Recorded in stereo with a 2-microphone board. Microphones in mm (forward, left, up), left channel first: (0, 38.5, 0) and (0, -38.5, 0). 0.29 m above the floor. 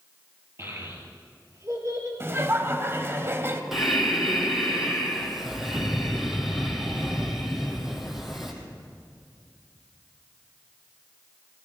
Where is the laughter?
35° right (ahead or behind), 1.1 m.